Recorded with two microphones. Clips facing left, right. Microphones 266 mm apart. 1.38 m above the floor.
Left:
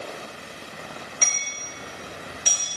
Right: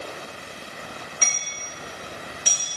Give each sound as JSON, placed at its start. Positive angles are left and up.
{"t": 1.2, "sound": "hammering", "side_deg": -60, "distance_m": 3.0}